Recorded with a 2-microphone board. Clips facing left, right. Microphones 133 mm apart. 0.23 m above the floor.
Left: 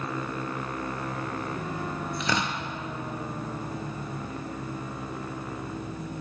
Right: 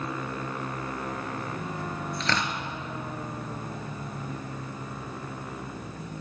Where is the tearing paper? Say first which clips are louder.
Left 1 dB; 15° left (ahead or behind), 0.7 m.